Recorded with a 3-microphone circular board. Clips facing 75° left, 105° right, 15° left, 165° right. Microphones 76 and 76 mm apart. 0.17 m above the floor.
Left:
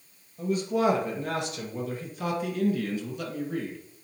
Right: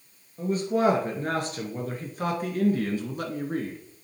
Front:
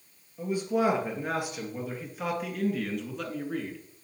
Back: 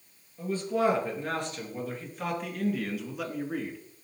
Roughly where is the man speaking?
Ahead right.